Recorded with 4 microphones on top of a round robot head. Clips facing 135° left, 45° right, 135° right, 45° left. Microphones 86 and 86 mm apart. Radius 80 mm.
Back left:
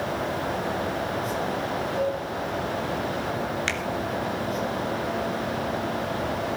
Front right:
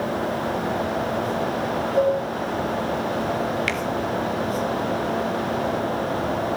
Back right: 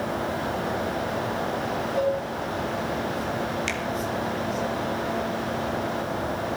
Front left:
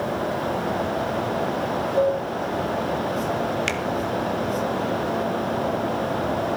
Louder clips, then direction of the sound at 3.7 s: Front right 3 dB, front left 3 dB; 75° left.